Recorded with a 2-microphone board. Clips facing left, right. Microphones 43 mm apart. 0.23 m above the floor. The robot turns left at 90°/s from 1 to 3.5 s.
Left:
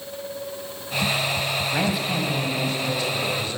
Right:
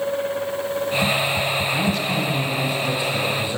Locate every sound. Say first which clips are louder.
1.7 s a man speaking: right 2 dB; 15° left (ahead or behind), 1.0 m; by 3.6 s 20° right (ahead or behind), 1.0 m